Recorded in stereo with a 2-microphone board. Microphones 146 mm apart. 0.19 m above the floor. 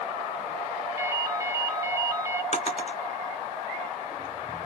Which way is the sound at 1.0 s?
20° right (ahead or behind).